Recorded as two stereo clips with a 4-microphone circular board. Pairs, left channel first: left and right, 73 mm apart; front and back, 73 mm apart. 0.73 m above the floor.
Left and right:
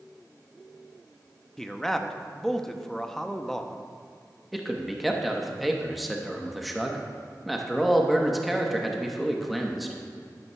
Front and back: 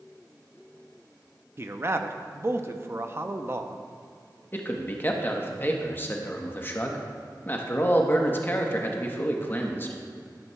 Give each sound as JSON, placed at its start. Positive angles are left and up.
{"t": 1.6, "sound": "a man speaking", "azimuth_deg": 170, "distance_m": 0.5}
{"t": 4.5, "sound": "a man speaking", "azimuth_deg": 0, "distance_m": 0.8}